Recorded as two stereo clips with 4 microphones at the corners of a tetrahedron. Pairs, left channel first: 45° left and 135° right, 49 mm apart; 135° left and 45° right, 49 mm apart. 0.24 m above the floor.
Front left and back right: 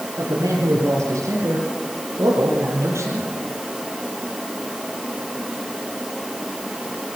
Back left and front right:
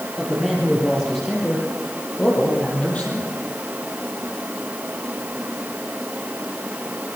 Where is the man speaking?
135° right, 7 m; by 3.3 s 165° right, 8.5 m.